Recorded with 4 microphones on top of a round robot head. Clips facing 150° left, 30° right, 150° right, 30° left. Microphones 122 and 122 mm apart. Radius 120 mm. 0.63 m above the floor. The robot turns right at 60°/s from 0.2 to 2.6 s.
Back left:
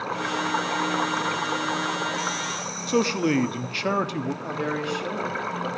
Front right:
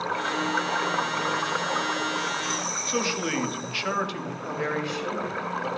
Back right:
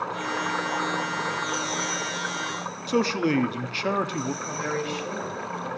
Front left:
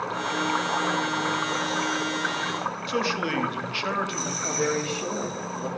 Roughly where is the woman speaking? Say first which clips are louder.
Back left 1 dB, front left 3 dB; left.